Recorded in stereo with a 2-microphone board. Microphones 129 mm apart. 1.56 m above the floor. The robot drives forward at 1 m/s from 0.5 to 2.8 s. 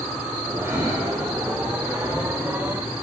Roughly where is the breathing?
Centre.